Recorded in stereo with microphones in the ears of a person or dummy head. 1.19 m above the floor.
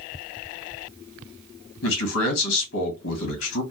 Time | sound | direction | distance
1.8 | a man speaking | 75° left (ahead or behind) | 2 m